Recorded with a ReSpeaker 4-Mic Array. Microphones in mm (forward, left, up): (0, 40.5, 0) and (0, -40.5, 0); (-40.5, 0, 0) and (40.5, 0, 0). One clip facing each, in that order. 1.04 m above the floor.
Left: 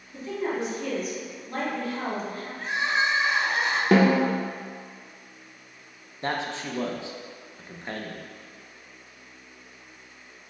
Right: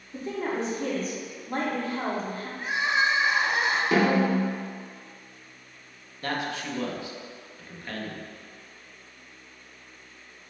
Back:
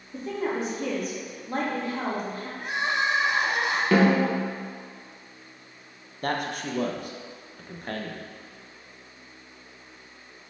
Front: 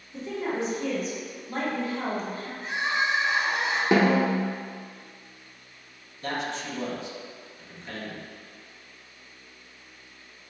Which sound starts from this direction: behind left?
A man speaking, at 6.2 s.